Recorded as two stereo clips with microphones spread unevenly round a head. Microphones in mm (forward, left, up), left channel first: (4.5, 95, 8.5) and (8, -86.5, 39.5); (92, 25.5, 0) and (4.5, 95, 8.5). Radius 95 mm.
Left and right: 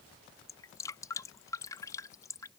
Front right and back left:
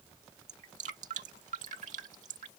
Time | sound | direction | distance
0.5 | dripping | 170° left | ?